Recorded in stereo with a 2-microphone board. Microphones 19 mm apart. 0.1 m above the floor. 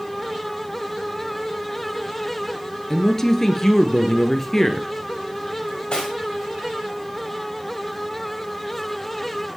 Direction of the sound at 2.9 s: 25° left (ahead or behind).